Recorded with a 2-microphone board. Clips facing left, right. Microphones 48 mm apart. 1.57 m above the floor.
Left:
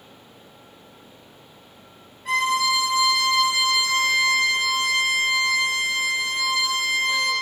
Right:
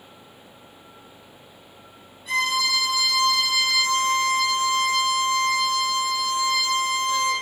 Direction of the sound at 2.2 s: 50° left (ahead or behind).